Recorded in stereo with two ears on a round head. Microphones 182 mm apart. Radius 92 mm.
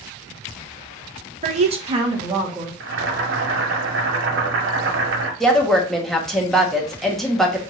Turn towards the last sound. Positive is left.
turn(degrees=0)  # may be behind; listen again after turning